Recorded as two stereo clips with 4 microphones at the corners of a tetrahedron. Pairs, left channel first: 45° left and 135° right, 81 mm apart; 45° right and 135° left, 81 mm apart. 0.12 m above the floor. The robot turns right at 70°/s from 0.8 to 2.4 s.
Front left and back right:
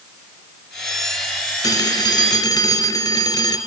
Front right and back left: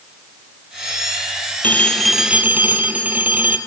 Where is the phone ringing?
15° left, 1.9 m; by 3.6 s 70° left, 1.9 m.